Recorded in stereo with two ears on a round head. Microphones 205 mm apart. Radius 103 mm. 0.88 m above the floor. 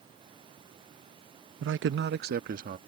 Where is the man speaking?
55° right (ahead or behind); by 2.8 s 35° right (ahead or behind).